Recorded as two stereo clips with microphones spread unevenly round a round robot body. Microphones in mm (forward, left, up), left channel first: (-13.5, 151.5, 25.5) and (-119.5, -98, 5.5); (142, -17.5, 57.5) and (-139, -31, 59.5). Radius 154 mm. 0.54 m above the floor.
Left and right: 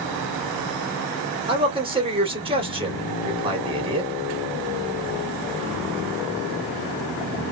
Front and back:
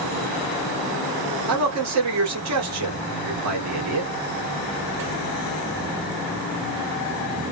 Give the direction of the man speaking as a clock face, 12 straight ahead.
6 o'clock.